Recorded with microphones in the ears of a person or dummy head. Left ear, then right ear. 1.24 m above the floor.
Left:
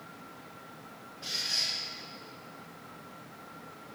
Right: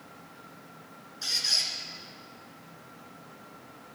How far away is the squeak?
About 3.5 m.